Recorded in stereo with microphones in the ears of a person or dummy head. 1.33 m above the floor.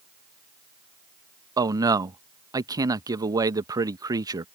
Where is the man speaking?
15° right (ahead or behind).